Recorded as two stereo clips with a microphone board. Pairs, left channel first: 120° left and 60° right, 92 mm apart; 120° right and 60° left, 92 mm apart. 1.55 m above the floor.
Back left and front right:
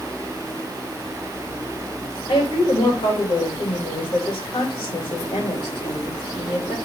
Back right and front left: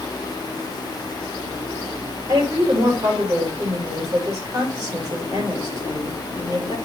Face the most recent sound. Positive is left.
turn(degrees=110)